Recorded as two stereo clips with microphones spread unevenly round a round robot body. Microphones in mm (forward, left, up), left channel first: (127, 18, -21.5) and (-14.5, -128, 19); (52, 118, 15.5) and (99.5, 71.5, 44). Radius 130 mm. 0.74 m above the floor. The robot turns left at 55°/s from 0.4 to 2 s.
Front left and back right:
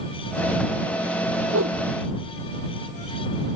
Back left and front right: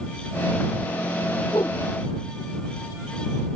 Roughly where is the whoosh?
Behind.